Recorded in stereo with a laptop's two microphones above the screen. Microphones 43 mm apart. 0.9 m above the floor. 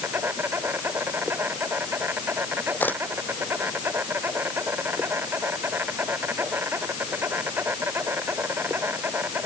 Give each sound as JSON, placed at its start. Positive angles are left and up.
{"t": 0.0, "sound": "an insect", "side_deg": -65}
{"t": 2.8, "sound": "a camera shutter", "side_deg": 45}